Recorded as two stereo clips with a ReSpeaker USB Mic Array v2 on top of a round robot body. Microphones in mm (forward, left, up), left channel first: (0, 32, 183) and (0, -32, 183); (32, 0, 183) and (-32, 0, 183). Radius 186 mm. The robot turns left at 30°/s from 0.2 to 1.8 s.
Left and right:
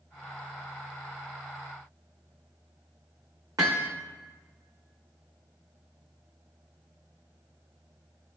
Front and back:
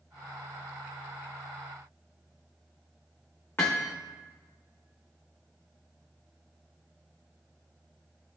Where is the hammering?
55° right, 0.5 m.